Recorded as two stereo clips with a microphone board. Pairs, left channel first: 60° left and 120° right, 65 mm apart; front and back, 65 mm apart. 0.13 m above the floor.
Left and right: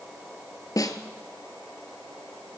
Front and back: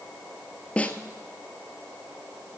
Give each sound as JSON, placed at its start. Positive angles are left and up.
{"t": 0.8, "sound": "a snare drum", "azimuth_deg": 70, "distance_m": 1.0}